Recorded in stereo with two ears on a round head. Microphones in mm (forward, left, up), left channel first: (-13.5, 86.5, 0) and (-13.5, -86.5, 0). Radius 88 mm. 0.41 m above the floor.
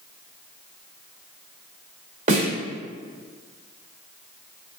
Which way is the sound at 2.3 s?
40° right (ahead or behind).